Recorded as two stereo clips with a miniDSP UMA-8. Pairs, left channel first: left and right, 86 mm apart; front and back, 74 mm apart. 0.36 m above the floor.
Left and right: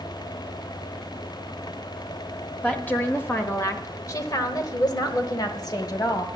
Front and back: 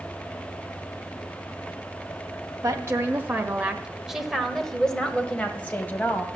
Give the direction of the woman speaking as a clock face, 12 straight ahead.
7 o'clock.